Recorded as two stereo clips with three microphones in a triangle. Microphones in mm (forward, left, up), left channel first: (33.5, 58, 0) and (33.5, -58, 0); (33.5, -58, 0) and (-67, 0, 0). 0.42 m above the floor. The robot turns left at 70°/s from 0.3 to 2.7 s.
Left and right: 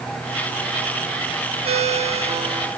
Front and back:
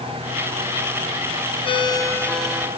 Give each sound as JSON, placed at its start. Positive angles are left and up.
{"t": 1.6, "sound": "a ringtone", "azimuth_deg": -65, "distance_m": 1.6}